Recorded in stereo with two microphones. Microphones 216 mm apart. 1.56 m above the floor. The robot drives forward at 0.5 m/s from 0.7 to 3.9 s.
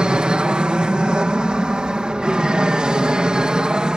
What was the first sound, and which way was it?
An aircraft, 5° right (ahead or behind).